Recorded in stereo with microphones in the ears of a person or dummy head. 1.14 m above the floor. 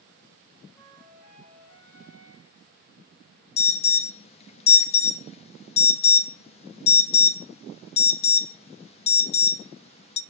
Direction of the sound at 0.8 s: 10° left (ahead or behind).